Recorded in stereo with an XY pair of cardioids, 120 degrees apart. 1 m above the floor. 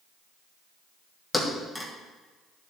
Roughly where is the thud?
Ahead.